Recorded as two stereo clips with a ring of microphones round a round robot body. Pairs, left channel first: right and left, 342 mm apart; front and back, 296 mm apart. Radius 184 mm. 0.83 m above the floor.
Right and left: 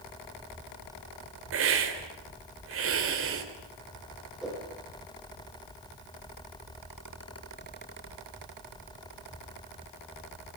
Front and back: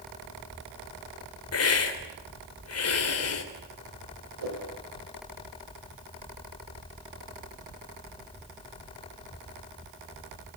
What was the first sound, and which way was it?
A hiss, 35° left.